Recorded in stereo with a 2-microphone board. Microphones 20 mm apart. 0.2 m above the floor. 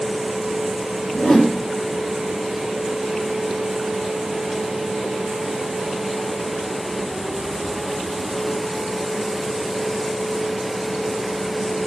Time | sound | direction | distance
1.1 | a whoosh | 75° left (ahead or behind) | 6.5 m